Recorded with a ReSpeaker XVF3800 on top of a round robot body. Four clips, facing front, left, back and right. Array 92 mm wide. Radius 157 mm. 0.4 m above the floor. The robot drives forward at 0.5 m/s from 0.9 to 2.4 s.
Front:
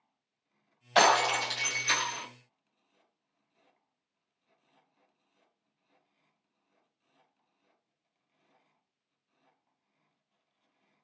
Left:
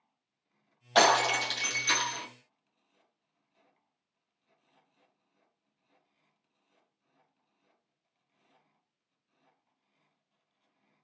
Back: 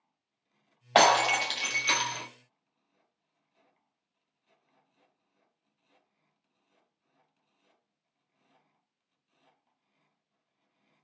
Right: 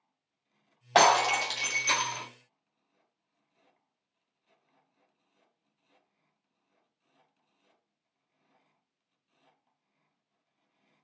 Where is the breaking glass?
150° right, 1.5 m; by 2.2 s 160° right, 2 m.